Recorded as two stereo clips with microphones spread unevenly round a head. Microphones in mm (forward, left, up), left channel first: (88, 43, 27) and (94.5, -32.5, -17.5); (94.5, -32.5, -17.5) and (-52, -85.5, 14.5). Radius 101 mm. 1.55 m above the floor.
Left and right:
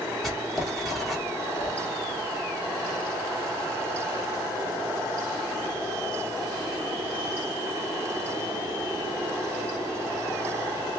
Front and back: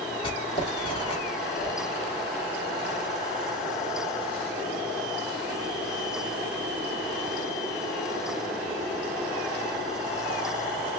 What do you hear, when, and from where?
0.2 s writing: 80° left, 1.2 m
1.6 s a whoosh: 135° left, 2.5 m